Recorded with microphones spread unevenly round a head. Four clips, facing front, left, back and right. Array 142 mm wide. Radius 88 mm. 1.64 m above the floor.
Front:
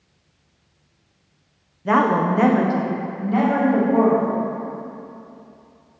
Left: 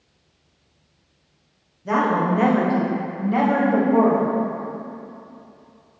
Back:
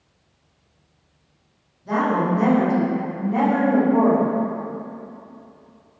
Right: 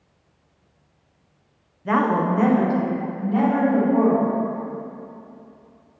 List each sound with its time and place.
1.9 s a woman speaking: 5° left, 1.2 m; by 4.3 s 75° left, 3.5 m